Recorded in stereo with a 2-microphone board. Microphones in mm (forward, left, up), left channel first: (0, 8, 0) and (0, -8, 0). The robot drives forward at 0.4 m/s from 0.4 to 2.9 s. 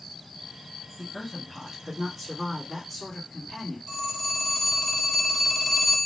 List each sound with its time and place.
1.0 s a woman speaking: 15° left (ahead or behind), 1.4 m
3.9 s a phone ringing: centre (ahead or behind), 1.4 m